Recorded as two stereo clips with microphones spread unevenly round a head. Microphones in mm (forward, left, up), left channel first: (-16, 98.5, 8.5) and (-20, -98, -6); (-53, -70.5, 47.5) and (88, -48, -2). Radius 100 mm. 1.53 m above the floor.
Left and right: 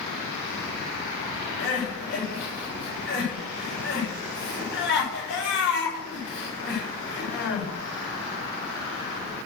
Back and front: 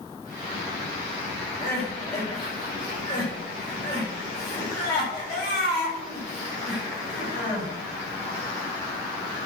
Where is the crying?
120° left, 7.5 m.